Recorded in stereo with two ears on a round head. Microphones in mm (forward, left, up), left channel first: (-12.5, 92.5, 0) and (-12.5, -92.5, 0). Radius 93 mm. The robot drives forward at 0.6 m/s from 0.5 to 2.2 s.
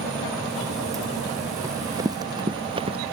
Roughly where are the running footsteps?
Centre.